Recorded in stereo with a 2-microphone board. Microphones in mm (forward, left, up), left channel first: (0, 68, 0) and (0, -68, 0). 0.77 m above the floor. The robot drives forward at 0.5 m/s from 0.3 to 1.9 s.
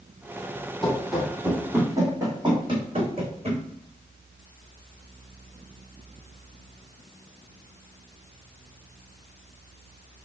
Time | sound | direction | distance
0.8 | running footsteps | 5° left (ahead or behind) | 1.3 m